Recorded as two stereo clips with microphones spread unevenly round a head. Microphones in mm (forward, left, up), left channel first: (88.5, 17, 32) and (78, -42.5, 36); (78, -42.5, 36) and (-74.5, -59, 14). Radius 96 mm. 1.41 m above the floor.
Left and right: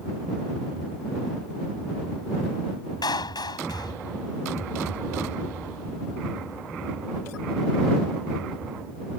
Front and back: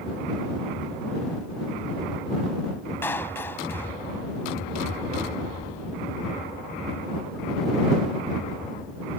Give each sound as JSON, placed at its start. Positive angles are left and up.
{"t": 3.0, "sound": "a clap", "azimuth_deg": 85}